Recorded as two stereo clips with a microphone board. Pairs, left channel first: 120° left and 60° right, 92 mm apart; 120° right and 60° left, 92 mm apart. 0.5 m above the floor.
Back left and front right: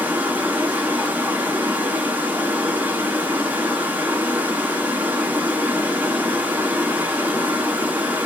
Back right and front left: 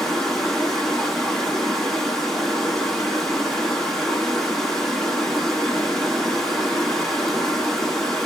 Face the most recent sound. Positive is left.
turn(degrees=-40)